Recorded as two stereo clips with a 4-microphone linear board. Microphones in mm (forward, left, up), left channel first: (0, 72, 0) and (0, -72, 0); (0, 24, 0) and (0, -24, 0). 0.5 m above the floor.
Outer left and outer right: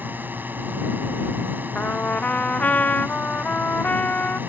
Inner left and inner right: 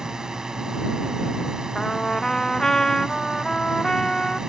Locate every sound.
0.0 s a drone: 15° right (ahead or behind)
1.8 s a trumpet: 10° left (ahead or behind)